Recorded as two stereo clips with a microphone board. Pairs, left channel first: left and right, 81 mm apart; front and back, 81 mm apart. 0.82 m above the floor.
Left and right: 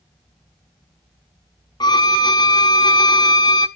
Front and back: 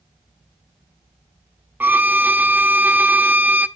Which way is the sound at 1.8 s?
110° left.